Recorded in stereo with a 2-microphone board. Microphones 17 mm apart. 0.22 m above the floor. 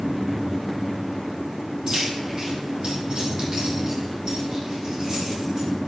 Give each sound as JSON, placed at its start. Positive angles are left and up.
{"t": 1.9, "sound": "keys jangling", "side_deg": -30, "distance_m": 4.0}